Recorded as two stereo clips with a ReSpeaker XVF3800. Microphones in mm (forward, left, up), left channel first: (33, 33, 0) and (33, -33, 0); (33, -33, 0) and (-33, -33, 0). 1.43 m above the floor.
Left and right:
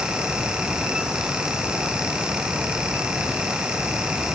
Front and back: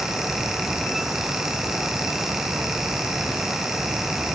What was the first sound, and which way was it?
Only background noise.